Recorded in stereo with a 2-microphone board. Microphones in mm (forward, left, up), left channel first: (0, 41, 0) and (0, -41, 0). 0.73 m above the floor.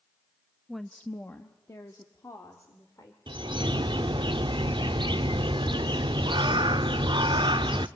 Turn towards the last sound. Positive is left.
turn(degrees=-70)  # may be behind; listen again after turning